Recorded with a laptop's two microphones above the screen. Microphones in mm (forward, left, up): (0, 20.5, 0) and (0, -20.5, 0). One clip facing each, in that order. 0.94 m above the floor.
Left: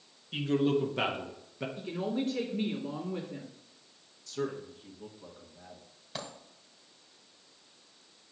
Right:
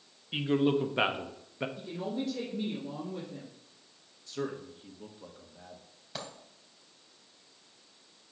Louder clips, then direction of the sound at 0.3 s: Right 1 dB; 25° right (ahead or behind).